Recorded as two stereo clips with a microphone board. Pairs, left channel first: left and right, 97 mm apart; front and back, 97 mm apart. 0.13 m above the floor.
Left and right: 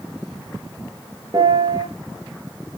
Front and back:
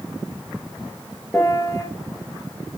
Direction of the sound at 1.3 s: 55° right.